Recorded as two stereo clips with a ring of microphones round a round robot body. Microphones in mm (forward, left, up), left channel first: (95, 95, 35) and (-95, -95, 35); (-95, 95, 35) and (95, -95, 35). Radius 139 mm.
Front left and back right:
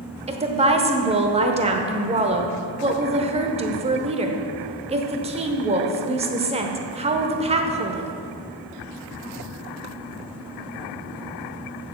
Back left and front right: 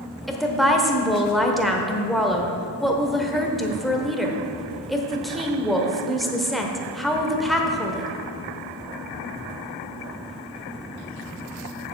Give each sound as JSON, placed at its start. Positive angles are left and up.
{"t": 0.3, "sound": "a woman speaking", "azimuth_deg": -135, "distance_m": 1.0}